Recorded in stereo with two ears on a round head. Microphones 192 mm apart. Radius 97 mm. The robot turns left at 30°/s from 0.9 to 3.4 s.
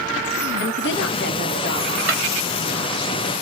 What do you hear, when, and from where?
0.6 s a woman speaking: 60° left, 0.8 m; by 2.0 s 25° left, 0.8 m
2.1 s a drawer: 5° right (ahead or behind), 1.3 m; by 2.2 s 10° right (ahead or behind), 1.3 m